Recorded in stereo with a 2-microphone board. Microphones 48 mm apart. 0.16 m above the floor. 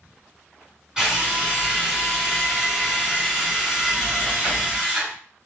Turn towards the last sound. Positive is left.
turn(degrees=-10)  # may be behind; listen again after turning